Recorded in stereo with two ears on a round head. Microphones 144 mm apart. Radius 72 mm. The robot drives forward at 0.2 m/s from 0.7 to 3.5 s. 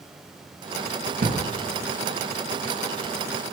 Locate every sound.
1.2 s a thud: 65° right (ahead or behind), 0.9 m